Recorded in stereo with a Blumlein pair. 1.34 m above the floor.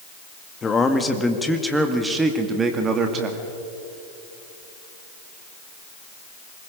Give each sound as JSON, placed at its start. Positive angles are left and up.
{"t": 0.6, "sound": "a man speaking", "azimuth_deg": 20, "distance_m": 1.7}